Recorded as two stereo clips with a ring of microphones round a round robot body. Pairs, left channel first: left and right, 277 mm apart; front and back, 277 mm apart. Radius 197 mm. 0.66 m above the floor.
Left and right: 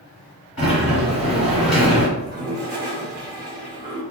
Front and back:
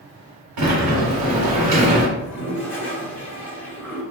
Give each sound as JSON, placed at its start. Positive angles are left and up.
{"t": 0.6, "sound": "a sliding door", "azimuth_deg": 155, "distance_m": 0.8}
{"t": 2.2, "sound": "a toilet flushing", "azimuth_deg": -100, "distance_m": 1.0}